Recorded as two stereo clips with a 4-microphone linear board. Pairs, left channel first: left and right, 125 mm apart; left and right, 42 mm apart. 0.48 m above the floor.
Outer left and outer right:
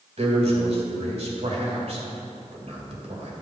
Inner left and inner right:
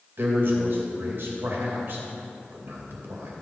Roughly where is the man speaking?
Right.